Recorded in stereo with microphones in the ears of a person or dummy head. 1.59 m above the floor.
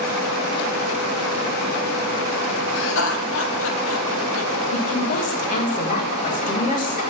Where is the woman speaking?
40° left (ahead or behind), 1.7 m.